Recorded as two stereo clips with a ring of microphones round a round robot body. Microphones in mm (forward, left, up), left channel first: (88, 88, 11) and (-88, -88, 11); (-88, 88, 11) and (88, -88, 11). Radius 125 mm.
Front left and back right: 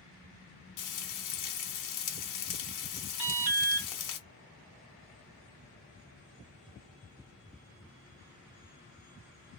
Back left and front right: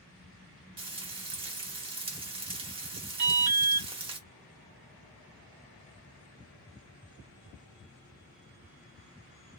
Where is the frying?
25° left, 0.8 m.